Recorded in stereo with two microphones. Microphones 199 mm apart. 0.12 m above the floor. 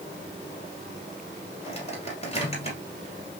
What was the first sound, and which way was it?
A microwave, 30° left (ahead or behind).